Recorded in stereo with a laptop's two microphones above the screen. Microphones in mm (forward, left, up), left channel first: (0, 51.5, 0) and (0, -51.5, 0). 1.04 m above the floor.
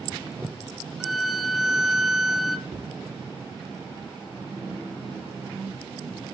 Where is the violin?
5° right (ahead or behind), 0.9 m.